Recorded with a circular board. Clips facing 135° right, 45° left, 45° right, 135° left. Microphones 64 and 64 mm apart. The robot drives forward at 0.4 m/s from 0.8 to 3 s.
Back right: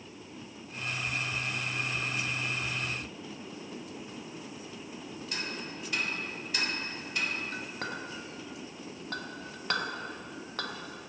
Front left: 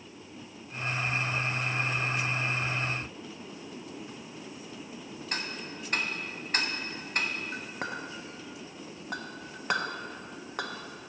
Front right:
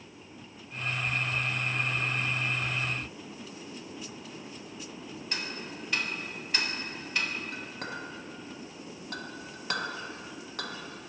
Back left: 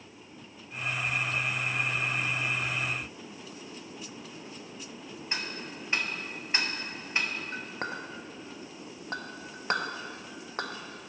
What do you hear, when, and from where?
5.3 s ticking: 75° left, 0.8 m
7.5 s a clink: 110° left, 0.6 m